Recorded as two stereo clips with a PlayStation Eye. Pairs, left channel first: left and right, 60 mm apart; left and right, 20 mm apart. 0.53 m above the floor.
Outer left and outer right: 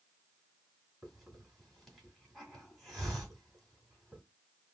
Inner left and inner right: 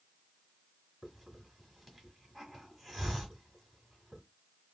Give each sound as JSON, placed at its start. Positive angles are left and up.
{"t": 1.0, "sound": "a hiss", "side_deg": 0, "distance_m": 2.0}